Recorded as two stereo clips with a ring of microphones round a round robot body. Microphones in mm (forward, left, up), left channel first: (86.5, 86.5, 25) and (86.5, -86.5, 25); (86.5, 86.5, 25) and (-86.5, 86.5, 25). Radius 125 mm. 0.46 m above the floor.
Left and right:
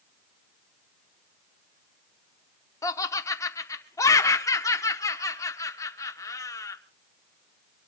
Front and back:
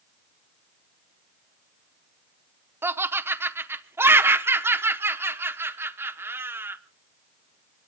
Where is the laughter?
125° left, 0.7 m.